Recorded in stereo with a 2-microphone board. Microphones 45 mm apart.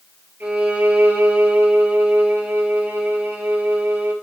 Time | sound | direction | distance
0.4 | a violin | 55° right (ahead or behind) | 3 m